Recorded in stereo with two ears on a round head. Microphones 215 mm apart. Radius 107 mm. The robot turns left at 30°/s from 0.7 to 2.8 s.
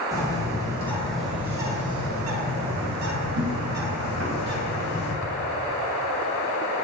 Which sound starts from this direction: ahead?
A bird, at 0.1 s.